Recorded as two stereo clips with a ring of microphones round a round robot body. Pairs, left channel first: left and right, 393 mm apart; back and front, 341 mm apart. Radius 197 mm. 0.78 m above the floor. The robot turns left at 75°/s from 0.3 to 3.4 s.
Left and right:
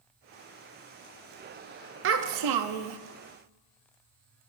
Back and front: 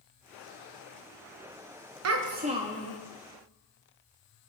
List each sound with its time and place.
2.0 s a child speaking: 35° right, 0.6 m; by 3.0 s 105° right, 0.6 m